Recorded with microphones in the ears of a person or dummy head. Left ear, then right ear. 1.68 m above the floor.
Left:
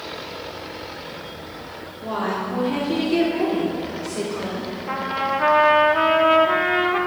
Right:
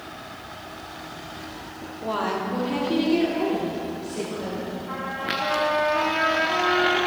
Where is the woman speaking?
25° right (ahead or behind), 1.4 m; by 4.7 s 20° left (ahead or behind), 3 m.